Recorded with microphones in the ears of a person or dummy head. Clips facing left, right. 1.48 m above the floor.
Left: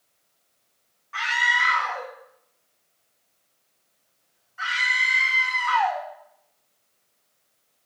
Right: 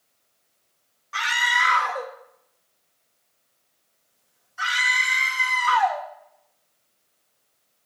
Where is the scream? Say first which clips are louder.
Right 1 dB; 55° right (ahead or behind), 2 m.